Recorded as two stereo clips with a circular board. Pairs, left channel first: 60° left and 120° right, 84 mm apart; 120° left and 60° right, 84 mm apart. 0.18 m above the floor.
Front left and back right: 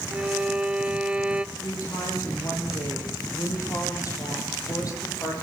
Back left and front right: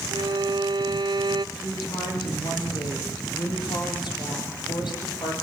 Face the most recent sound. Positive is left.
turn(degrees=105)